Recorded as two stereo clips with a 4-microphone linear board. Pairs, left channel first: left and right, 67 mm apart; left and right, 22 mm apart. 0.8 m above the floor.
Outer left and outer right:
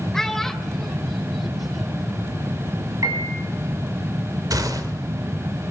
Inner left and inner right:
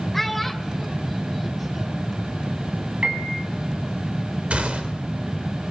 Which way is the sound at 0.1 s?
10° left (ahead or behind).